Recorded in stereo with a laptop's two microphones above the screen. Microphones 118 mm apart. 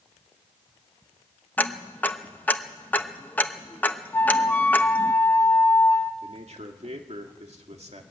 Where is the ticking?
15° left (ahead or behind), 1.0 m.